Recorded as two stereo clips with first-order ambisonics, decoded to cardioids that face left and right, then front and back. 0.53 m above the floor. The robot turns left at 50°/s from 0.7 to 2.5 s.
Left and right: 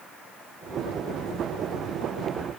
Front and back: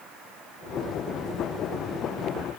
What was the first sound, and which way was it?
Only background noise.